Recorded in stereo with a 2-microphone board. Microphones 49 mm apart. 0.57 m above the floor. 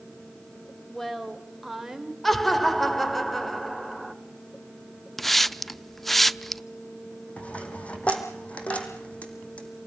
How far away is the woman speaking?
About 3 m.